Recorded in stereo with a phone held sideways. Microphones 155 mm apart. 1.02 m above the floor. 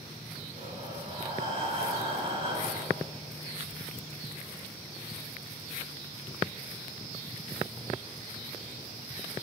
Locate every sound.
0.6 s breathing: 40° right (ahead or behind), 10 m